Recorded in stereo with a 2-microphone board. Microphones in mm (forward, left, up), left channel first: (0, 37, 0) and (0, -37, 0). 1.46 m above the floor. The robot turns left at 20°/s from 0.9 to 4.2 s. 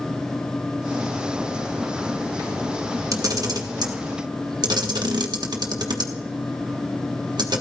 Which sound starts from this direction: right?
A camera shutter, at 3.1 s.